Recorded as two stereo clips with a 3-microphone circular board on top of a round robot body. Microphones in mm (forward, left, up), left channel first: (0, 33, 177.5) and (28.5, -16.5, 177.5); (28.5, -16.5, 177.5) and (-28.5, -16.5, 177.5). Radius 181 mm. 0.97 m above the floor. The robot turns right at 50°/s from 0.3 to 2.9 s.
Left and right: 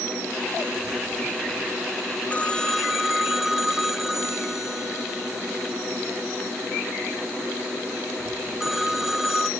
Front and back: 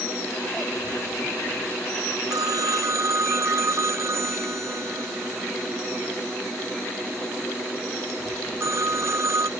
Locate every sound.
2.3 s a phone ringing: 175° right; by 9.5 s 145° right